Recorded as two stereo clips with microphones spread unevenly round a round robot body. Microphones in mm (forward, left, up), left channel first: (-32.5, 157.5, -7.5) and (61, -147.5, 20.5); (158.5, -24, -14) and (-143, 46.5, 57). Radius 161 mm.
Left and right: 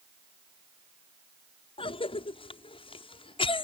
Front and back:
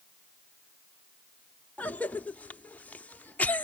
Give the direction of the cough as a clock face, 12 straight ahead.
10 o'clock.